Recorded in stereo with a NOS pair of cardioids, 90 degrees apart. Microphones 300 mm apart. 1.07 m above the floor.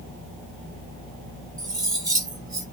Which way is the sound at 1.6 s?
15° right.